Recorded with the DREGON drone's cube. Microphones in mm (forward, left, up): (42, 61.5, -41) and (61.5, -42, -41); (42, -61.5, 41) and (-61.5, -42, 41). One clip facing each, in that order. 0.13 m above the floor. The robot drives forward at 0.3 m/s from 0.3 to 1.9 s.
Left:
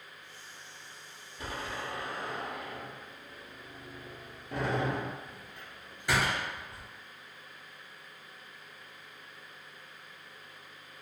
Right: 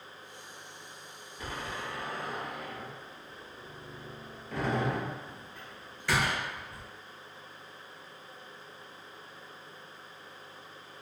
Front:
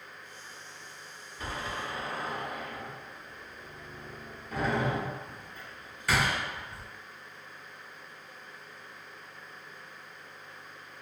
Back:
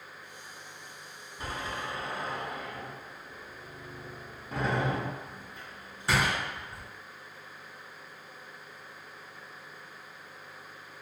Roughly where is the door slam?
Behind left.